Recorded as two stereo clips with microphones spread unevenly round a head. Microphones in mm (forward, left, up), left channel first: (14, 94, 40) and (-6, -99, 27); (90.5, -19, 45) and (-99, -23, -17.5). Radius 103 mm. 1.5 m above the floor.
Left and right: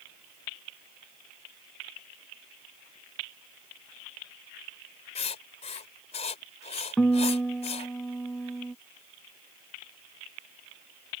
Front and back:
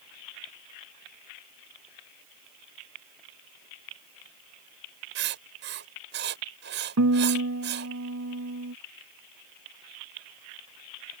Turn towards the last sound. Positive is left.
turn(degrees=170)